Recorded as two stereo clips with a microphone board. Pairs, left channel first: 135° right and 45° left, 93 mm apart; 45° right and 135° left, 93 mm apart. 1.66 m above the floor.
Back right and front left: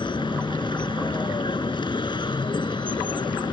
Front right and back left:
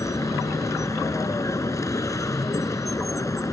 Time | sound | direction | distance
0.0 | a vehicle | 100° right | ?